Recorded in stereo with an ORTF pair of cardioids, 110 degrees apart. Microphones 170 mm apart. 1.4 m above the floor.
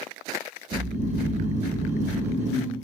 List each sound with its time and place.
0.7 s snoring: 45° right, 0.6 m